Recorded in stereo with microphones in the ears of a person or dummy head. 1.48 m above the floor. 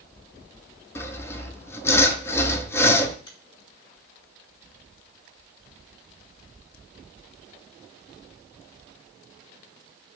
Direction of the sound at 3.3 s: 25° left (ahead or behind).